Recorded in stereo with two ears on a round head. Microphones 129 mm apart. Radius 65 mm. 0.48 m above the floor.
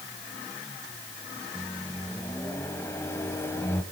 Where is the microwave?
20° left (ahead or behind), 2.0 m.